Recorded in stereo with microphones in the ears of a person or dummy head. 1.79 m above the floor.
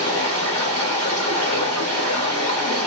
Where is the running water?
10° left (ahead or behind), 1.7 m.